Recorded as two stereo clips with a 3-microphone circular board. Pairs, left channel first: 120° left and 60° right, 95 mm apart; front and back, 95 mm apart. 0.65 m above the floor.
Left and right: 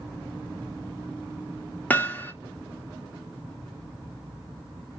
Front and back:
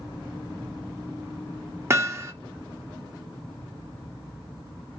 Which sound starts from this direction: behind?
Hammering, at 1.9 s.